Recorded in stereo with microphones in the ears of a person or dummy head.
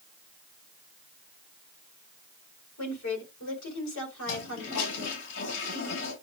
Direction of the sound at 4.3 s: 70° left (ahead or behind).